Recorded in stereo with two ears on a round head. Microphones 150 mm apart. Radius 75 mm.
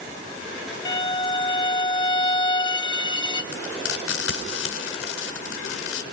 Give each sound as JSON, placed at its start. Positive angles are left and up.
{"t": 0.8, "sound": "a violin", "side_deg": 25, "distance_m": 1.3}
{"t": 3.5, "sound": "frying", "side_deg": 85, "distance_m": 4.5}